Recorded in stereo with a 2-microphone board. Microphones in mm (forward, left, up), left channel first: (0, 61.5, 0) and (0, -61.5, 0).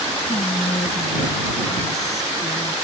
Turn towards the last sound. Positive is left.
turn(degrees=65)  # may be behind; listen again after turning